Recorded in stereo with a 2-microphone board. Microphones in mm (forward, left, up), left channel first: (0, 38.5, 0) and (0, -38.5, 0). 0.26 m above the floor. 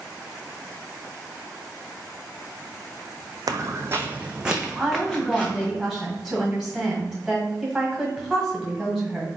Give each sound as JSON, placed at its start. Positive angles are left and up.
{"t": 3.5, "sound": "footsteps", "side_deg": -55, "distance_m": 0.5}
{"t": 4.8, "sound": "a woman speaking", "side_deg": -5, "distance_m": 1.7}